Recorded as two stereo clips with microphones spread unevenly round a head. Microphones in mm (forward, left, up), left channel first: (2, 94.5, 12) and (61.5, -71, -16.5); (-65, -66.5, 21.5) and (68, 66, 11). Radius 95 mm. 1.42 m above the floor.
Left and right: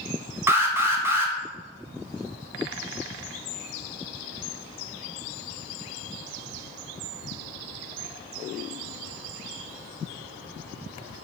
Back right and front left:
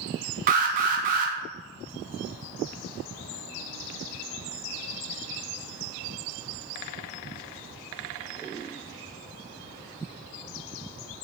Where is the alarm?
Straight ahead, 0.6 m.